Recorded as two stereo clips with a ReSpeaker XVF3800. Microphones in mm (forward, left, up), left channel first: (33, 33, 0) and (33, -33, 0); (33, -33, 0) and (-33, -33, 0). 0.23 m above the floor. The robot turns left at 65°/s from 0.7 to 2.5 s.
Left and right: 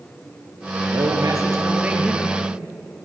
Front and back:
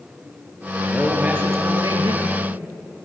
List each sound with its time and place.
0.9 s a man speaking: 90° right, 4.5 m; by 2.4 s 170° left, 4.5 m